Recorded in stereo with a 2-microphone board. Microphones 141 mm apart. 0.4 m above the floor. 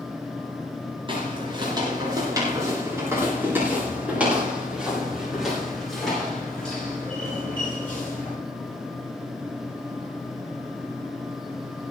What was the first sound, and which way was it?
Footsteps, 35° right (ahead or behind).